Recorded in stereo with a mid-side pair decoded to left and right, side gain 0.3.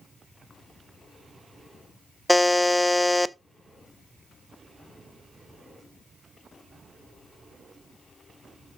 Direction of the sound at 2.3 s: 15° left.